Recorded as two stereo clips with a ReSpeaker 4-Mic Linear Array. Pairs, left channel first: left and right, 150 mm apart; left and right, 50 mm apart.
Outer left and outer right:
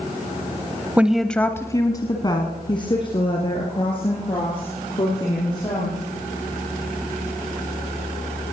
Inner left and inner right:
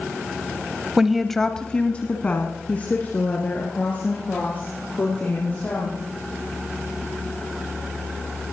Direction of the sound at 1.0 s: 10° right (ahead or behind).